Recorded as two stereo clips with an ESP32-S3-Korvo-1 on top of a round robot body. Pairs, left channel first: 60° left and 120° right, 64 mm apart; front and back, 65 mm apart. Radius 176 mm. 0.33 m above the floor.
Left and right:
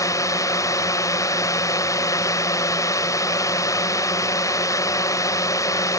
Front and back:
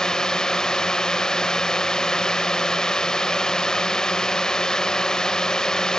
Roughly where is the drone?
Left.